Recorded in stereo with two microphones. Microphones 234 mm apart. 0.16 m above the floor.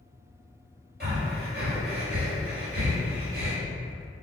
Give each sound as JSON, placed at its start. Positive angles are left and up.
{"t": 1.0, "sound": "breathing", "side_deg": -45, "distance_m": 1.3}